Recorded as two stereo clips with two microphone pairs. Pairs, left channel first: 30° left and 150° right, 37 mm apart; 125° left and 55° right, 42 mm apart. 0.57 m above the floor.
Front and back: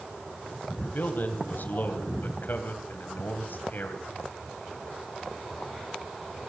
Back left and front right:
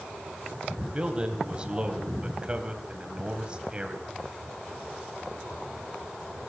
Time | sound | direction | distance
0.9 | a man speaking | 10° left | 2.5 m